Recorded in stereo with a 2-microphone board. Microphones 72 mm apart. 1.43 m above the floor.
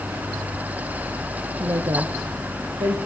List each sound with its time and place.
1.6 s a woman speaking: 50° right (ahead or behind), 0.6 m; by 3.0 s 60° right (ahead or behind), 1.3 m